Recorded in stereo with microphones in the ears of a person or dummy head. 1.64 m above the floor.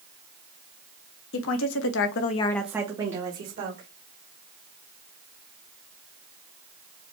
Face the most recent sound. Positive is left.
turn(degrees=-45)  # may be behind; listen again after turning